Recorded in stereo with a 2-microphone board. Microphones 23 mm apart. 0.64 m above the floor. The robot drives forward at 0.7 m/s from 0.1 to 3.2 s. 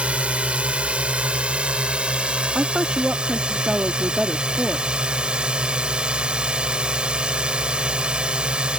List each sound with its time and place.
0.0 s a drone: 65° right (ahead or behind); by 8.8 s 45° right (ahead or behind)
2.5 s a woman speaking: 40° right (ahead or behind); by 5.0 s 35° right (ahead or behind)